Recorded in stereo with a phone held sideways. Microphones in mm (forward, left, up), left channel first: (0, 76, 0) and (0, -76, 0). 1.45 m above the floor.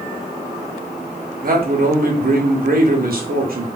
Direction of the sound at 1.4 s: 65° right (ahead or behind).